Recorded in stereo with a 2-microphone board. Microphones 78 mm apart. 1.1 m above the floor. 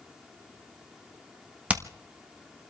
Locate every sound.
1.7 s hammering: 20° right (ahead or behind), 1.5 m